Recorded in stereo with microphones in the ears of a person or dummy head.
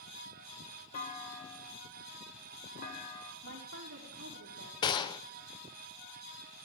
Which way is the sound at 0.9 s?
40° left (ahead or behind).